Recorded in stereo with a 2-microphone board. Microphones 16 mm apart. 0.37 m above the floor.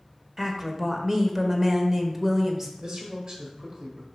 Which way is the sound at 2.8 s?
45° right (ahead or behind).